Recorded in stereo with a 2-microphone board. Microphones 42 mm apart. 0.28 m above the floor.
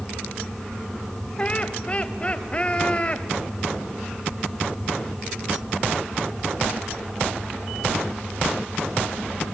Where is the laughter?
30° left (ahead or behind), 1.2 m.